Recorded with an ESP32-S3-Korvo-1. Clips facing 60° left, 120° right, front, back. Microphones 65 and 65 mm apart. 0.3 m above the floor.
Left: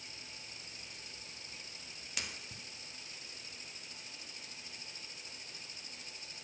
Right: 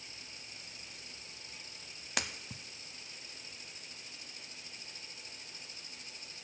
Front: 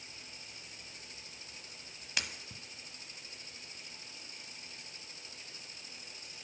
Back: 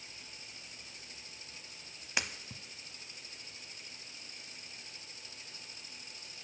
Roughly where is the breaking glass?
Behind right.